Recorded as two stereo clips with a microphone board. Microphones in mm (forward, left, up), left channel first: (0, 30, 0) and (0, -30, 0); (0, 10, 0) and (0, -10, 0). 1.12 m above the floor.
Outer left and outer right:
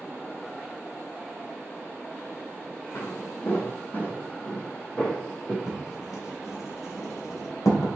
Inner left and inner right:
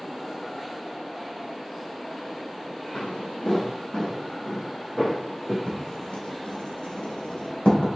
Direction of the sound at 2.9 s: 40° left (ahead or behind).